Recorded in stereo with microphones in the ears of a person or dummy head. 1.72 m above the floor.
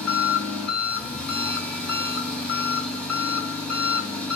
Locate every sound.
0.0 s an engine running: 5° left (ahead or behind), 1.1 m